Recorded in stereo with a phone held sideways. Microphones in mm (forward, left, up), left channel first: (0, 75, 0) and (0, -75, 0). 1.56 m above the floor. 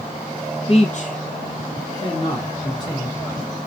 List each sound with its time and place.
0.7 s a man speaking: 40° left (ahead or behind), 0.6 m; by 3.6 s 20° left (ahead or behind), 2 m